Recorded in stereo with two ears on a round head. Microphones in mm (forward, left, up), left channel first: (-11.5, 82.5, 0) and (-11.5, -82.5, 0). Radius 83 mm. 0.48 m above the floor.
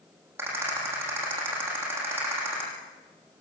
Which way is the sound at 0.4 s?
10° right (ahead or behind).